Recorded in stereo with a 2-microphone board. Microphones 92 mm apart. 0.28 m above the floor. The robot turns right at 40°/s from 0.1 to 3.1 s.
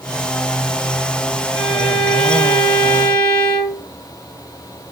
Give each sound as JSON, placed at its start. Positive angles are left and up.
{"t": 1.5, "sound": "a violin", "azimuth_deg": 5, "distance_m": 2.0}